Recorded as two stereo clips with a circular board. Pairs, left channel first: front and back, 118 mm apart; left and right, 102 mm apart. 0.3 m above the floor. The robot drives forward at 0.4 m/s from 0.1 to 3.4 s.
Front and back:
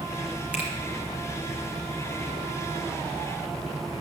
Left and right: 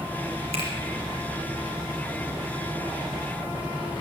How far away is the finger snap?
About 4 m.